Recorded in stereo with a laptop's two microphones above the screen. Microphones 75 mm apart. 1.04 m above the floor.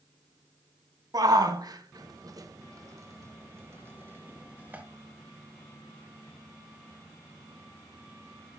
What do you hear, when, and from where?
1.1 s a shout: 55° right (ahead or behind), 1.3 m; by 4.8 s 20° right (ahead or behind), 1.9 m